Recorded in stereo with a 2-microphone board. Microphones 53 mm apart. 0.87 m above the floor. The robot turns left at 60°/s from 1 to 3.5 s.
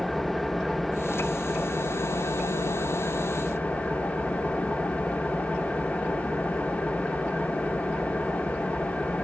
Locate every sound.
0.0 s an engine running: 175° left, 0.8 m; by 9.2 s 25° left, 0.8 m